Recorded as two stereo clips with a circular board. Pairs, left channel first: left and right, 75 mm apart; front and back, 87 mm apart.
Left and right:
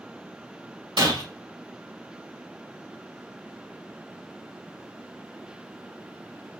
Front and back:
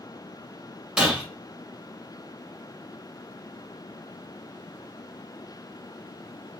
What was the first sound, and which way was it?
Breaking glass, 100° right.